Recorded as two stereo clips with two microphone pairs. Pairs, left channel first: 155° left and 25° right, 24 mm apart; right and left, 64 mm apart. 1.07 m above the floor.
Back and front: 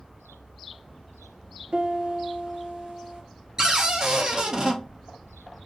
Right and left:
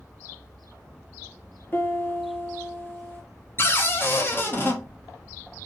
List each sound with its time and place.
1.7 s a piano: 45° right, 0.9 m
3.6 s a cupboard door: 65° right, 0.6 m